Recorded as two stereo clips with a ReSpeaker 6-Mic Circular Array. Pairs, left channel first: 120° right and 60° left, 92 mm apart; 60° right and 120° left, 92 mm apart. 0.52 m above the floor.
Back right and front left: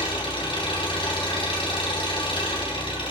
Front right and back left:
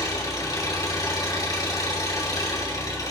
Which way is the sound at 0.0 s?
110° right.